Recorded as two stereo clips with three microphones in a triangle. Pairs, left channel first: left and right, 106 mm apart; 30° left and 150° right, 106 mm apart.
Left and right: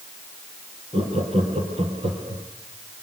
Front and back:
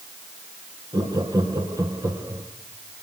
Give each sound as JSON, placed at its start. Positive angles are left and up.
{"t": 0.9, "sound": "laughter", "azimuth_deg": -105, "distance_m": 5.0}